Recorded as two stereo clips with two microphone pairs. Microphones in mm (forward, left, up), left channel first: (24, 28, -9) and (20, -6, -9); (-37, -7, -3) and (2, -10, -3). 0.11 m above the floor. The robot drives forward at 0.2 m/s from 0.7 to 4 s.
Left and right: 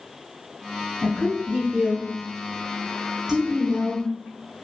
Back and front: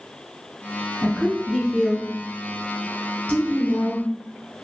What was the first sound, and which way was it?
A woman speaking, 150° right.